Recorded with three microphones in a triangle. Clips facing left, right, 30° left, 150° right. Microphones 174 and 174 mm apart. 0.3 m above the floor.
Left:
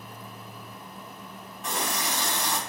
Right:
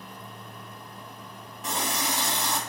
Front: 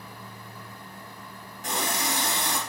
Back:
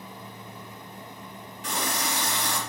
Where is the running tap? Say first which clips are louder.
Right 1 dB, front 1 dB; straight ahead, 1.4 m.